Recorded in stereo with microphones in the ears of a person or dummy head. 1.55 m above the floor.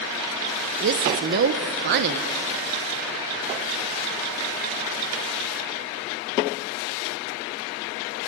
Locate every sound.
0.8 s a woman speaking: 55° right (ahead or behind), 0.8 m